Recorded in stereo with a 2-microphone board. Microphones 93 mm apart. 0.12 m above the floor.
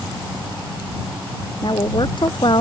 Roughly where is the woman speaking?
Left.